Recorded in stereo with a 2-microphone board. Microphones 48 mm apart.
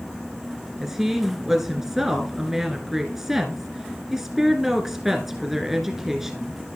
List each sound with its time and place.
0.8 s a woman speaking: 5° right (ahead or behind), 1.1 m